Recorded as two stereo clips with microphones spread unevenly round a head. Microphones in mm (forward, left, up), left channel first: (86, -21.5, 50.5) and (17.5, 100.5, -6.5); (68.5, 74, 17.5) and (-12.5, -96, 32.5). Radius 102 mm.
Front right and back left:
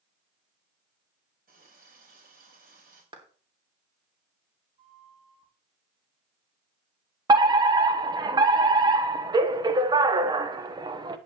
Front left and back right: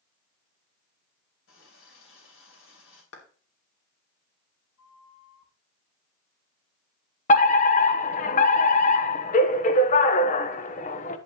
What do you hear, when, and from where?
1.5 s a running tap: 95° left, 3.5 m
3.1 s a clap: 65° left, 3 m
4.8 s a flute: 70° left, 4.5 m
7.3 s a fire alarm: 100° left, 1.1 m